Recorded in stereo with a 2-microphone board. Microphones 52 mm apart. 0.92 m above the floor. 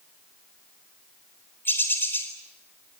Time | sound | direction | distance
1.6 | a bird | 45° left (ahead or behind) | 4 m